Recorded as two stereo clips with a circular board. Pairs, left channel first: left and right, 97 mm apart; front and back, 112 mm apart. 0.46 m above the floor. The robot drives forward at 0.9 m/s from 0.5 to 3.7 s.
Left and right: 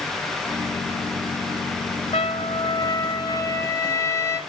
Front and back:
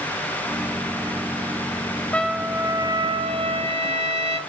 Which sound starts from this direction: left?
A trumpet, at 2.1 s.